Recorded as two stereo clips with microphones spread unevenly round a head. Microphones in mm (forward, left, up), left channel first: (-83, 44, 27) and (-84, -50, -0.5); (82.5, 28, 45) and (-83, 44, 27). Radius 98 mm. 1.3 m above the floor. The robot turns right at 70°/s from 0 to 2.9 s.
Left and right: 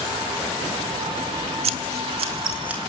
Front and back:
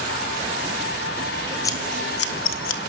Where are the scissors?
80° right, 1.0 m; by 2.8 s straight ahead, 1.0 m.